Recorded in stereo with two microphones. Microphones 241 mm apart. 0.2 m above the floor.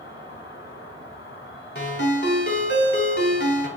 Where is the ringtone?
50° left (ahead or behind), 0.7 m.